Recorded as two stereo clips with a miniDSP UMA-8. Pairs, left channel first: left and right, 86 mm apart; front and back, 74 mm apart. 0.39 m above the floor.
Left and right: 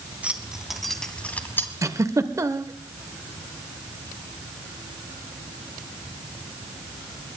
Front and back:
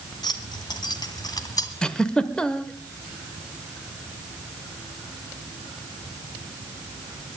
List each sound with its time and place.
0.2 s keys jangling: 15° right, 2 m; by 1.7 s 30° left, 2.0 m
1.8 s a giggle: 75° right, 1.2 m